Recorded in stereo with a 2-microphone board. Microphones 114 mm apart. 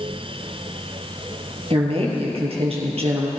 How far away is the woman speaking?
About 3 m.